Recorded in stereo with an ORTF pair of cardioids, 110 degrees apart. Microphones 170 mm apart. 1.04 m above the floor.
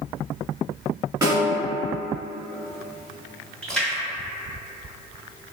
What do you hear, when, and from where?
1.2 s a snare drum: 20° right, 1.4 m
3.6 s a splash: 5° left, 1.1 m